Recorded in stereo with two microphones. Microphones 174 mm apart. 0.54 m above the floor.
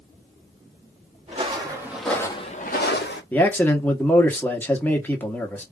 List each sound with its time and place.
1.3 s footsteps: 30° right (ahead or behind), 2.0 m; by 3.2 s 70° left (ahead or behind), 1.7 m
3.3 s a man speaking: 10° left (ahead or behind), 1.1 m